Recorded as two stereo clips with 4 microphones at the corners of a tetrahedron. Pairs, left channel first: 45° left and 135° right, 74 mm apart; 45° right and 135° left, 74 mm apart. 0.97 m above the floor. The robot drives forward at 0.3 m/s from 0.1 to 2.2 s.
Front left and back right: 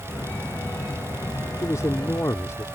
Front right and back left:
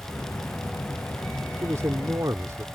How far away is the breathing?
I don't hear breathing.